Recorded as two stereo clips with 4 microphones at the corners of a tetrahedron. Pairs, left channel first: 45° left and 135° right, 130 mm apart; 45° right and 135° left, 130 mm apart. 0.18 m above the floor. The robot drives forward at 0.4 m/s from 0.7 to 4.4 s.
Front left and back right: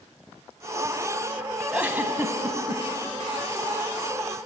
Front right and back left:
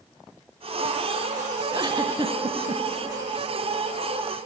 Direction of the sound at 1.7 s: 150° left.